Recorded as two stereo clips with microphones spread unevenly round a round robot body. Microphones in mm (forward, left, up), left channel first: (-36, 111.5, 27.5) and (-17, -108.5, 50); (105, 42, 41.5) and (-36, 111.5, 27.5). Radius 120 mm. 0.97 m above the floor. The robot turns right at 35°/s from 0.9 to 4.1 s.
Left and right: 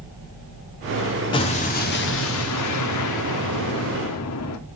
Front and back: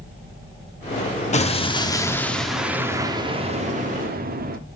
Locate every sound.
1.3 s an explosion: 20° left, 1.2 m; by 4.6 s 120° left, 1.2 m